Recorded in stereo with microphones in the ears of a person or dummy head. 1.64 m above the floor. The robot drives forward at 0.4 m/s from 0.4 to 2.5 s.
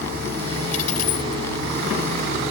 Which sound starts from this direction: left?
A dropped coin, at 0.7 s.